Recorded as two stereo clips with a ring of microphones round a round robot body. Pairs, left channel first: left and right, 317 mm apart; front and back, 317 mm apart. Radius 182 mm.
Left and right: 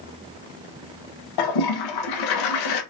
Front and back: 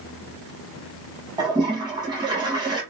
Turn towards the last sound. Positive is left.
turn(degrees=100)